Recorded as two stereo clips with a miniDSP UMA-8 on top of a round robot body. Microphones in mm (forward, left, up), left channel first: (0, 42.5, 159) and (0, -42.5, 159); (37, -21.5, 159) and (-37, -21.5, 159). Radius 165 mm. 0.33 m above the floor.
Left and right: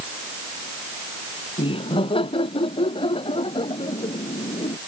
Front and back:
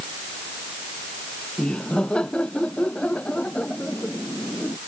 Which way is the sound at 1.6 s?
80° left.